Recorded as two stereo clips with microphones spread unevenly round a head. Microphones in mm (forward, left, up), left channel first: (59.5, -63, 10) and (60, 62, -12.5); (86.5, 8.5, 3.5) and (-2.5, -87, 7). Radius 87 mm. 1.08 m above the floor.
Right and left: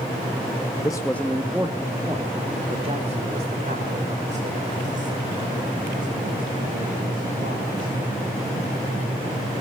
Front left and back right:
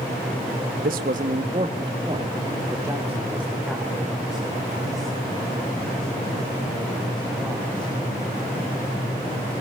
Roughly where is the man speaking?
Behind.